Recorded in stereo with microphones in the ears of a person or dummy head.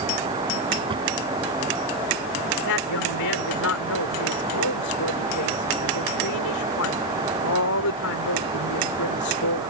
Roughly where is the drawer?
Right.